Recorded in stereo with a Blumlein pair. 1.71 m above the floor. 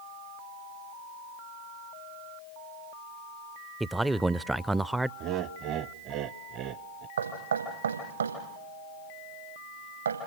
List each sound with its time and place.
3.8 s a man speaking: 5° right, 0.5 m
5.2 s laughter: 35° right, 0.9 m
7.2 s knocking: 70° right, 7 m